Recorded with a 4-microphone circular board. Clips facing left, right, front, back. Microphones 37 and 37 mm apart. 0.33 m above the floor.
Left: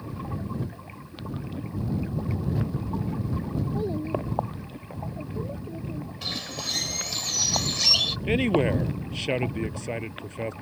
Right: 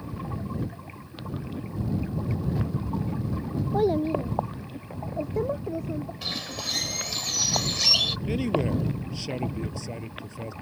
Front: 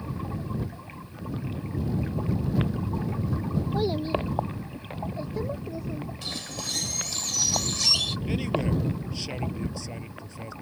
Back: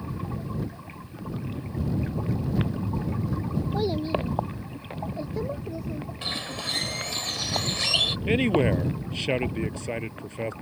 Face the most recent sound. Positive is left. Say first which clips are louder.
# left 7 dB, back 7 dB
turn(degrees=130)